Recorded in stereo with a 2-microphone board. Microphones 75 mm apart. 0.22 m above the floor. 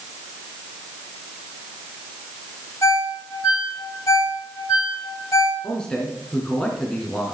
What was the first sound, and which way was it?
A ringtone, 45° left (ahead or behind).